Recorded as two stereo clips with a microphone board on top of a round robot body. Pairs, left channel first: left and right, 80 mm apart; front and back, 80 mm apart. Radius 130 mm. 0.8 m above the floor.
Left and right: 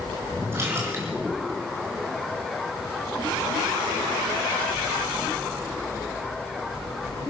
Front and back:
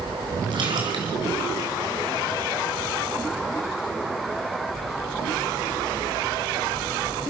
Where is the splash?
150° right, 6 m.